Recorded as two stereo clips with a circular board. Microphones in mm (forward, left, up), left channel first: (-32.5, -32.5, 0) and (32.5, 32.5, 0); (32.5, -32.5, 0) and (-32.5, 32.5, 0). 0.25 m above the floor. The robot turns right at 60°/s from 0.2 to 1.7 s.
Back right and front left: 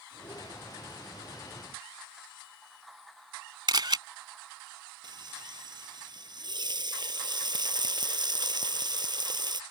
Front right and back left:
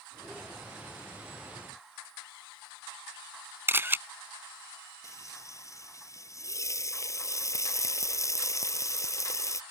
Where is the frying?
10° left.